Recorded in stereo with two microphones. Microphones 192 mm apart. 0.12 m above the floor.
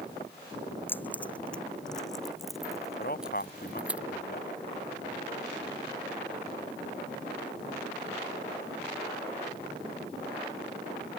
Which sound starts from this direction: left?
A man speaking, at 3.0 s.